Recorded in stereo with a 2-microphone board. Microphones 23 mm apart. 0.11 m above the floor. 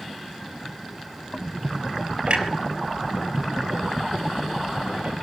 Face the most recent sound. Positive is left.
turn(degrees=-55)  # may be behind; listen again after turning